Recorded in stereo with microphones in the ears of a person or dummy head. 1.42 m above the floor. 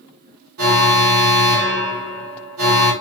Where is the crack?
I don't hear a crack.